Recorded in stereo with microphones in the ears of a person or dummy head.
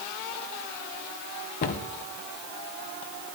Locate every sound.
1.6 s a cupboard door: 50° left (ahead or behind), 0.8 m